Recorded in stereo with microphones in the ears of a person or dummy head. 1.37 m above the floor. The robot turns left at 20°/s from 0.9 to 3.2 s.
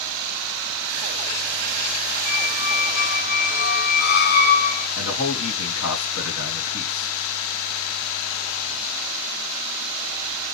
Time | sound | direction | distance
2.2 | a squeak | 40° left (ahead or behind) | 0.7 m
5.0 | a man speaking | 85° left | 1.6 m